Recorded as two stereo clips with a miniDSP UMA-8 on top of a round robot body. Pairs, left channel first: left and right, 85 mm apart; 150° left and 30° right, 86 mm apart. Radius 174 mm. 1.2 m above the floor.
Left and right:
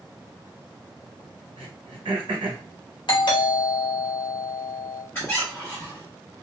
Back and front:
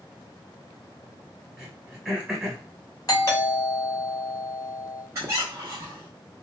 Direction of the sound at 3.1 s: 105° left.